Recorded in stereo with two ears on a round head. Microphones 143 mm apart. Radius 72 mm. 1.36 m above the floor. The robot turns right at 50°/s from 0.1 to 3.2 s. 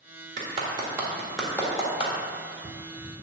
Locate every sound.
0.4 s a clap: 45° right (ahead or behind), 1.6 m; by 2.1 s 40° left (ahead or behind), 1.6 m